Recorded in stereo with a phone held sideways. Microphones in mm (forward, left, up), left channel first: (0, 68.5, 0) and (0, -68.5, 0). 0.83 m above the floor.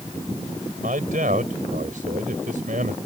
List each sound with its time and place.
0.8 s a man speaking: 80° right